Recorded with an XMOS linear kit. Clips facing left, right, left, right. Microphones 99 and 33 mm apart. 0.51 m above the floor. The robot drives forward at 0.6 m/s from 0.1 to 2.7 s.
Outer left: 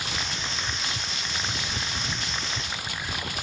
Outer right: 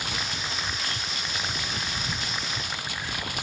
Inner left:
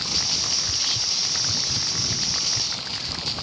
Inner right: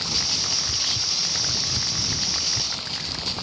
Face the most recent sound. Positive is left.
turn(degrees=5)  # may be behind; listen again after turning